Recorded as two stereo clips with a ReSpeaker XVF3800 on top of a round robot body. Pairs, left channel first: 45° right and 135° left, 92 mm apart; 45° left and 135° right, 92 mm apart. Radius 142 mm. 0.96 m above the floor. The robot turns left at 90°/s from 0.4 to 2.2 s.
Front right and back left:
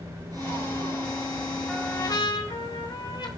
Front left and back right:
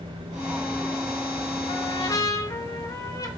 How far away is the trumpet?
About 1.3 m.